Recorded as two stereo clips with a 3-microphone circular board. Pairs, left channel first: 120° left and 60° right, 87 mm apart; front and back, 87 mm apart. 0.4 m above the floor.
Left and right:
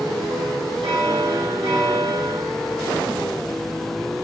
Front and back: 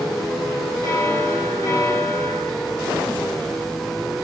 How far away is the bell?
About 6 m.